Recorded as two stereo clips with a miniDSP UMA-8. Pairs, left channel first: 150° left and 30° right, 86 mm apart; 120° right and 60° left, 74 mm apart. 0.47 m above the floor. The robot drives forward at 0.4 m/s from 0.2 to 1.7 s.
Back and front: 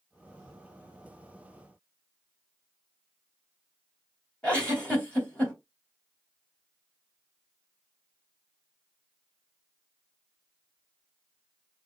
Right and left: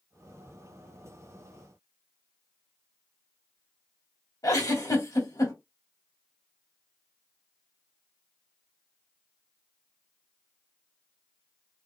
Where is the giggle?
135° right, 1.9 m.